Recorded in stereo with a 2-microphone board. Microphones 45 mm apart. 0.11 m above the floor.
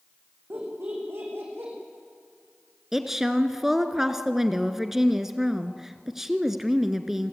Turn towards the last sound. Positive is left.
turn(degrees=-10)  # may be behind; listen again after turning